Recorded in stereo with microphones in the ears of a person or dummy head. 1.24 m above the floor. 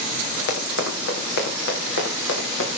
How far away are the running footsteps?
About 5.5 m.